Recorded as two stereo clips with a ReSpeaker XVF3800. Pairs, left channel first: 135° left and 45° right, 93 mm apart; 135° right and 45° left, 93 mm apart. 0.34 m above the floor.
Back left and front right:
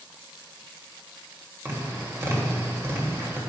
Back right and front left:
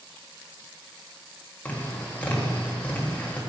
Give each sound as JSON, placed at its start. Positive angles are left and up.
{"t": 1.6, "sound": "tapping", "azimuth_deg": -80, "distance_m": 1.8}